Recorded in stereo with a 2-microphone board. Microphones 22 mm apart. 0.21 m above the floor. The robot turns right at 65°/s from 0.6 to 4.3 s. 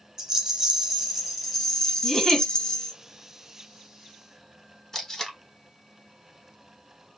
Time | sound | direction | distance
0.2 | a rattle | 55° right | 0.8 m
2.0 | a giggle | 5° left (ahead or behind) | 1.9 m
4.9 | tape being pulled | 25° left (ahead or behind) | 1.0 m